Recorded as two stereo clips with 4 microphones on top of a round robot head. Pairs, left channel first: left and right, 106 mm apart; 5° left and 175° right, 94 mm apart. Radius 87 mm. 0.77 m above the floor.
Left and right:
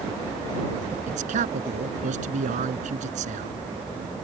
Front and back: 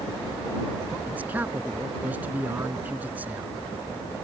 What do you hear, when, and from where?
1.1 s a man speaking: 95° right